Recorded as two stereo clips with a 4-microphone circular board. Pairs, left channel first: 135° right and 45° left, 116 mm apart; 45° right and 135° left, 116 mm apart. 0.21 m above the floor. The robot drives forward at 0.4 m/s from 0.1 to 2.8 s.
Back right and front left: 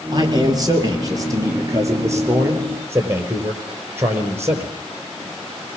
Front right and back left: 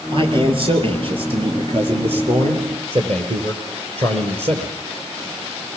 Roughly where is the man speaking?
Left.